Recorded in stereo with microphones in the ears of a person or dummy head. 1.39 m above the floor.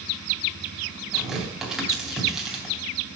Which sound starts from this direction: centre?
Tearing paper, at 1.1 s.